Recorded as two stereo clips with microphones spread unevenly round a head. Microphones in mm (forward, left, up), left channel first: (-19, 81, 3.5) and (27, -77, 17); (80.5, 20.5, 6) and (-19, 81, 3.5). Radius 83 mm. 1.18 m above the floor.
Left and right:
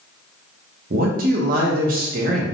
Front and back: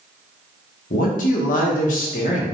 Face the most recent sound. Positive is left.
turn(degrees=-35)